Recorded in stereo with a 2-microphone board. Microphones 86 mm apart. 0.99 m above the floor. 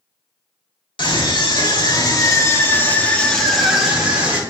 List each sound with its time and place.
1.0 s a scream: 70° left (ahead or behind), 1.9 m; by 4.4 s 15° right (ahead or behind), 1.8 m